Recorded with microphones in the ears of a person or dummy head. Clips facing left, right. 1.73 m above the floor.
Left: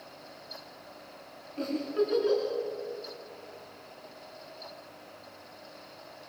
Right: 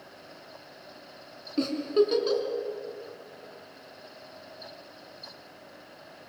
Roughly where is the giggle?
Right.